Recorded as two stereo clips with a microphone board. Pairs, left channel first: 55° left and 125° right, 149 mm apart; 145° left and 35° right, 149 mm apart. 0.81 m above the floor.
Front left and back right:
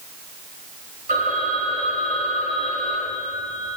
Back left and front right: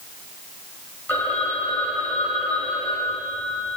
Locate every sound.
1.1 s a phone ringing: 140° right, 2.5 m